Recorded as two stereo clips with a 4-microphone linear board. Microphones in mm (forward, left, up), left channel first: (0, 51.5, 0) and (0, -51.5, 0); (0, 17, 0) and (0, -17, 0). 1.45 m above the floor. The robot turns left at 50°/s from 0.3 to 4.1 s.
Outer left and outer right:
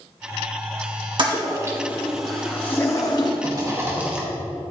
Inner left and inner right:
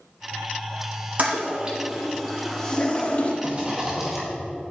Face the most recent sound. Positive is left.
turn(degrees=-170)